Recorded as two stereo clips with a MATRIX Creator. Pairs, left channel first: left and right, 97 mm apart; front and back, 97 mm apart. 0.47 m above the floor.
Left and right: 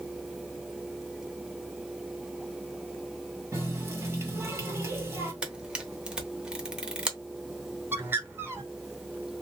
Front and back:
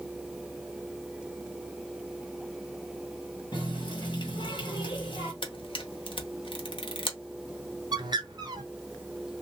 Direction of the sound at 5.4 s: 10° right.